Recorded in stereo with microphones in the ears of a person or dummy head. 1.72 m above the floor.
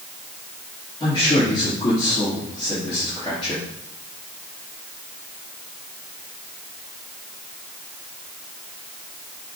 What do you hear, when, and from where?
1.0 s a man speaking: 20° left (ahead or behind), 4 m